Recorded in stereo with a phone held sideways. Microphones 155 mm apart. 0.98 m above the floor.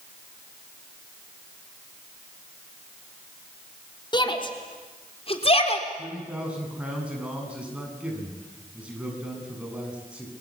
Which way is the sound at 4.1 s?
30° left (ahead or behind).